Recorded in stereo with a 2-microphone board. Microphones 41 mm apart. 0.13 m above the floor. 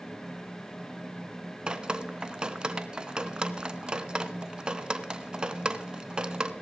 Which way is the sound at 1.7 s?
20° right (ahead or behind).